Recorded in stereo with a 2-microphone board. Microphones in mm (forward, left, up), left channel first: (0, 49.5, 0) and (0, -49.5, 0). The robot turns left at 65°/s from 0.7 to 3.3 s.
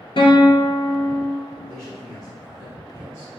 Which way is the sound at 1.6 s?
20° left.